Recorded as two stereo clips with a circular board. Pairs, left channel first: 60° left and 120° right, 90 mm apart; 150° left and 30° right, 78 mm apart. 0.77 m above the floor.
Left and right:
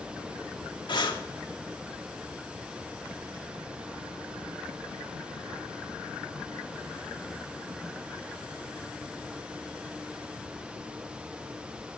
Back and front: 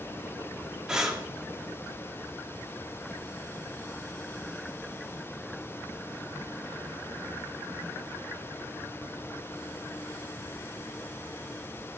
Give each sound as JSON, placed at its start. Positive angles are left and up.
{"t": 0.9, "sound": "breathing", "azimuth_deg": 50, "distance_m": 2.0}